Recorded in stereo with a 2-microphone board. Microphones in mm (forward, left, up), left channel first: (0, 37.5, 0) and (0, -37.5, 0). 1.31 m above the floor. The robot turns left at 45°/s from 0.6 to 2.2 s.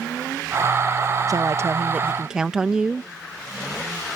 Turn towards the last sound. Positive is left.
turn(degrees=-170)